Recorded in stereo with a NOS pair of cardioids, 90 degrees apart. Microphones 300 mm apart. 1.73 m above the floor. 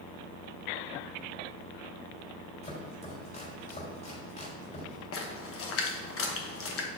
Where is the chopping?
35° left, 3.5 m.